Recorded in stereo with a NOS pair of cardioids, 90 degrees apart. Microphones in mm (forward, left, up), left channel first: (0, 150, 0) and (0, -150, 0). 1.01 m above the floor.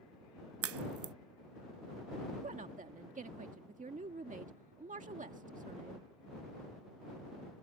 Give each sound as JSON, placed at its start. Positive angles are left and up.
{"t": 0.6, "sound": "a crack", "azimuth_deg": -50}
{"t": 2.4, "sound": "a woman speaking", "azimuth_deg": -25}